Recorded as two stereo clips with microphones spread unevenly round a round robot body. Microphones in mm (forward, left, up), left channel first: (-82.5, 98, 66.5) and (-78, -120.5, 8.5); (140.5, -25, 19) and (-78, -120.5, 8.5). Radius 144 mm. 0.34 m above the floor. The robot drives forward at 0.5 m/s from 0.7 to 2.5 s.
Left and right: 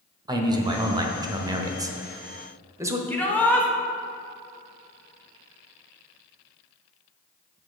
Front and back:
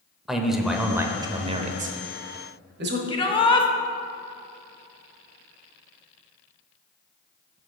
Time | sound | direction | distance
0.3 | a man speaking | 70° right | 0.9 m
3.1 | a shout | 15° right | 0.9 m